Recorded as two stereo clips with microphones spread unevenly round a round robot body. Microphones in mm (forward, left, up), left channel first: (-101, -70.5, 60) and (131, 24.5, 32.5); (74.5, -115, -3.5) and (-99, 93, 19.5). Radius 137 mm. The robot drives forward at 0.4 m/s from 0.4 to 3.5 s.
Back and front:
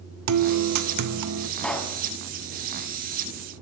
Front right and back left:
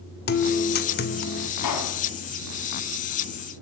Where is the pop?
70° right, 2.5 m; by 2.0 s 75° right, 2.5 m.